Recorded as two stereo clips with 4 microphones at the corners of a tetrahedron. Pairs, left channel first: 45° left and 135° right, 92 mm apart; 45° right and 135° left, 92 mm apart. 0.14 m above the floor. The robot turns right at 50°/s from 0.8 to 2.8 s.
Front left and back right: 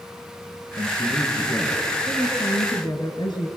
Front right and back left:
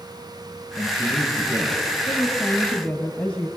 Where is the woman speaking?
10° right, 2.5 m; by 3.5 s 30° left, 2.5 m.